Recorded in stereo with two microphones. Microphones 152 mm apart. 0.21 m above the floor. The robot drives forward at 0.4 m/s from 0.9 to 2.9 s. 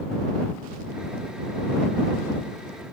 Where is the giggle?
I don't hear a giggle.